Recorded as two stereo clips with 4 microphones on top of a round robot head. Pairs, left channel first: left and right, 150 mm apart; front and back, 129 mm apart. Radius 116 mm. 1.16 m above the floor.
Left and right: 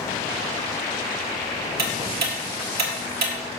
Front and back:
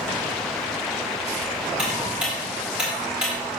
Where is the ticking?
95° right, 1.8 m.